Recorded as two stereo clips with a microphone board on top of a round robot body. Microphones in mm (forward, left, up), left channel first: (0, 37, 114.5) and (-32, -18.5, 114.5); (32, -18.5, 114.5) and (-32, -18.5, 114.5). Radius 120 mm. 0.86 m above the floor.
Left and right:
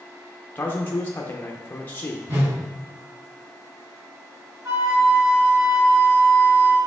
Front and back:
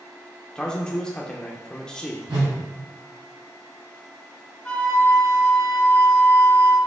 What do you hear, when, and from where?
0.6 s a man speaking: 70° left, 0.7 m
2.3 s a whoosh: 165° right, 1.2 m
4.7 s a flute: 70° right, 1.6 m